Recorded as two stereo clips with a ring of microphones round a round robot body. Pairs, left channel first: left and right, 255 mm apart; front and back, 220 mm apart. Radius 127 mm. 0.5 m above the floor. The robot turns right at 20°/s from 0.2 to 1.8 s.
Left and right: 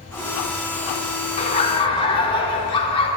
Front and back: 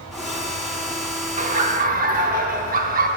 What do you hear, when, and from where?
1.4 s laughter: 145° left, 0.8 m; by 3.1 s 150° left, 0.8 m